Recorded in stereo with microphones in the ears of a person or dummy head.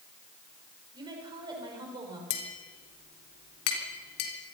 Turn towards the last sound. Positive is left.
turn(degrees=75)  # may be behind; listen again after turning